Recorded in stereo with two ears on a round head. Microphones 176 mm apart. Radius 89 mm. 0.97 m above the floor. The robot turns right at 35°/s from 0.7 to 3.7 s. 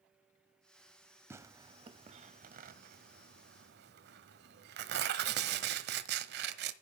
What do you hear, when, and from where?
1.3 s tearing paper: 15° right (ahead or behind), 1.2 m; by 6.7 s 55° right (ahead or behind), 1.2 m